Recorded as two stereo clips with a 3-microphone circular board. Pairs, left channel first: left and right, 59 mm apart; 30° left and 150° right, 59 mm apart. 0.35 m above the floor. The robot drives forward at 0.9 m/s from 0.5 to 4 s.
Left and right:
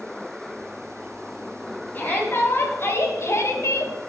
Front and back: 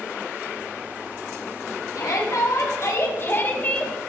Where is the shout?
35° left, 2 m; by 3.9 s 95° left, 1.5 m.